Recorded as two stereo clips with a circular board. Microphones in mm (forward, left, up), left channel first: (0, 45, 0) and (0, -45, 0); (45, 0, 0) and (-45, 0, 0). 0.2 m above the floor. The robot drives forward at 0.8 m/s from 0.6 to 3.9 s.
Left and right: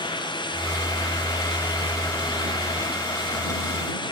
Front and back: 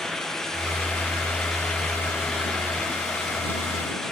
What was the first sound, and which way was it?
Only background noise.